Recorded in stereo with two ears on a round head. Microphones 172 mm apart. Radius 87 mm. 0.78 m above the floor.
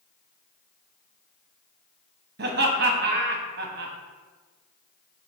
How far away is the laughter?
About 0.7 m.